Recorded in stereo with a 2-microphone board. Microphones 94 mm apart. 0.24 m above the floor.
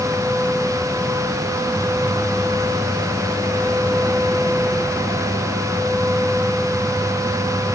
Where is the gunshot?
I don't hear a gunshot.